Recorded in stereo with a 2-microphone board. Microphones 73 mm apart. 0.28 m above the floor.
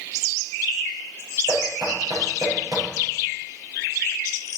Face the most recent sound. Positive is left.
turn(degrees=-70)  # may be behind; listen again after turning